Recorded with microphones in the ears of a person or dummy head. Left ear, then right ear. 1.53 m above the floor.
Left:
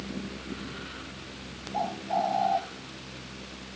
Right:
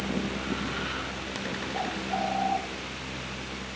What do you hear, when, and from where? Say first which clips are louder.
1.7 s a bird: left 4 dB; 80° left, 1.7 m